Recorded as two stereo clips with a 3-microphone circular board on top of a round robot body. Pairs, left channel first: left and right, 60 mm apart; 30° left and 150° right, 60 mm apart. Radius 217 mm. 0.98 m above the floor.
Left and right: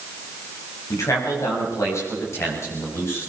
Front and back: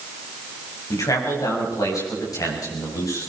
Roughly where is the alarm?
I don't hear an alarm.